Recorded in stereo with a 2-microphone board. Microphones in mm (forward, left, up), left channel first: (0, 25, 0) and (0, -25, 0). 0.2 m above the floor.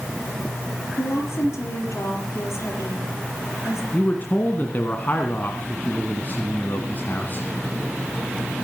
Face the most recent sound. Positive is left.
turn(degrees=40)  # may be behind; listen again after turning